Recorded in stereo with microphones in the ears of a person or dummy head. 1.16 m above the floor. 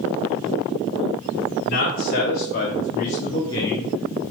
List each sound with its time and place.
1.6 s a man speaking: 50° left (ahead or behind), 1.3 m; by 4.2 s 5° right (ahead or behind), 0.6 m